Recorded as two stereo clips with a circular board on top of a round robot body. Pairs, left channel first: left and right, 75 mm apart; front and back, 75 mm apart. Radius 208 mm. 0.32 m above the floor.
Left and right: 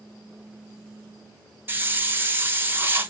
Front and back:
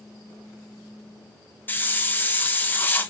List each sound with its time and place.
1.7 s a hiss: 45° right, 1.0 m